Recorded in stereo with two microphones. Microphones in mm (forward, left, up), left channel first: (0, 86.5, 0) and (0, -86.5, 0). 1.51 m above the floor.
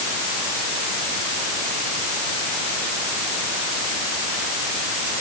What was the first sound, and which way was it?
Only background noise.